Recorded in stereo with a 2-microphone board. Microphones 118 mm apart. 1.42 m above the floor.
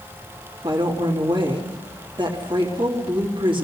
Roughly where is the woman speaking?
Right.